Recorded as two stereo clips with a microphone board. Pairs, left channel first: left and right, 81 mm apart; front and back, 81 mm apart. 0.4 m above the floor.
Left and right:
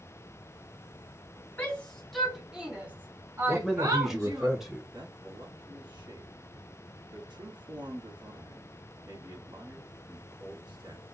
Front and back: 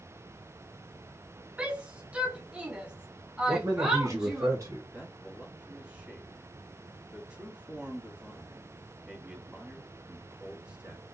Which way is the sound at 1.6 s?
130° left.